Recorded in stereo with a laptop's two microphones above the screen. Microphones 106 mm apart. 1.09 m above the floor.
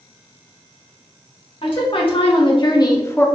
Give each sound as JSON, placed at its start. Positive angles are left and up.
{"t": 1.6, "sound": "a woman speaking", "side_deg": 65, "distance_m": 1.7}